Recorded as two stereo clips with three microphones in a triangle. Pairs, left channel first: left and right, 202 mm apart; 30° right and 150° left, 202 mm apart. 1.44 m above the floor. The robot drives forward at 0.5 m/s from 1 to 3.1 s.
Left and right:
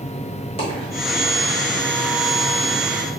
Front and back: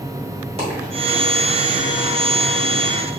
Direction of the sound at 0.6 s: 120° left.